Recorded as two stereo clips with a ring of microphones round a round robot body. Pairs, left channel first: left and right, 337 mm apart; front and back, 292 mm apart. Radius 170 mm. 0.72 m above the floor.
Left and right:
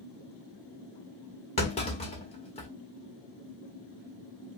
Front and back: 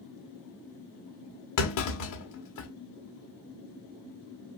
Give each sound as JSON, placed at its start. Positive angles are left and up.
{"t": 1.6, "sound": "a clunk", "azimuth_deg": 20, "distance_m": 1.9}